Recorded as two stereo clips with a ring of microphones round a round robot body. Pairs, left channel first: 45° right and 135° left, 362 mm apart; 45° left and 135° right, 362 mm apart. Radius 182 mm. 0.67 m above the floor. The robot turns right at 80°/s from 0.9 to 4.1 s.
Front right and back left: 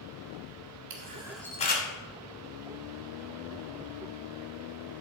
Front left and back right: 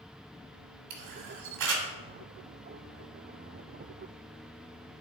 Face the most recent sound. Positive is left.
turn(degrees=85)